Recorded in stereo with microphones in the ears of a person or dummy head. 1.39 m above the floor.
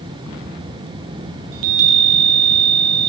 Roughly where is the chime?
Right.